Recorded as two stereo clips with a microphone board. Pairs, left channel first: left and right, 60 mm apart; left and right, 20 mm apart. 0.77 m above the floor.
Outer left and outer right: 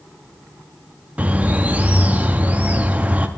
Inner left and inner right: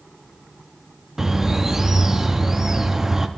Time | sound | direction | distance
1.2 | a bird | 25° right (ahead or behind) | 0.5 m